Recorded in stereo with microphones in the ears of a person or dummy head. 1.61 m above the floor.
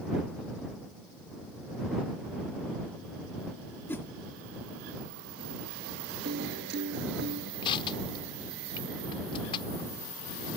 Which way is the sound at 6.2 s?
60° right (ahead or behind).